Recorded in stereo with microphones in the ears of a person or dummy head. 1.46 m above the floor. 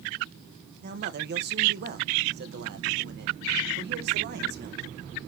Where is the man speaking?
50° right (ahead or behind), 1.7 m.